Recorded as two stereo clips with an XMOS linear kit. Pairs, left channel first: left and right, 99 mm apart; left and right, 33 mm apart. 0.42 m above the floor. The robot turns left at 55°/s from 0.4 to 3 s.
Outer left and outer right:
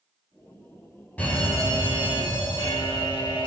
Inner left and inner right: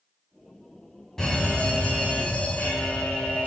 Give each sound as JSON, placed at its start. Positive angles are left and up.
{"t": 1.2, "sound": "a fire alarm", "azimuth_deg": 165, "distance_m": 5.5}